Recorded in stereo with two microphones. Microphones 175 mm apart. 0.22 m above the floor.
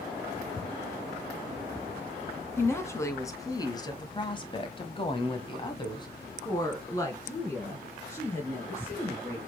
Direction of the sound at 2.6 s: 15° left (ahead or behind).